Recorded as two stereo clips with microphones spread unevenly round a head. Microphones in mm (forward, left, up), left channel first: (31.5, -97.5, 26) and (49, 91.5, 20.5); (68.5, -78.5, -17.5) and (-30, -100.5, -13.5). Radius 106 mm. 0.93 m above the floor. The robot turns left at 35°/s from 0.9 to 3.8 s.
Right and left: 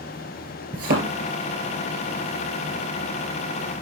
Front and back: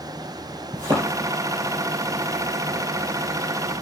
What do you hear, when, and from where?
0.7 s a thud: 130° left, 2.5 m; by 1.1 s 120° left, 2.5 m